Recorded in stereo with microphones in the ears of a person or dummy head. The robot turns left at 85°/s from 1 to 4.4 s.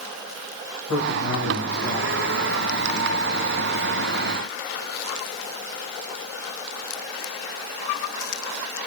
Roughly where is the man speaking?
Left.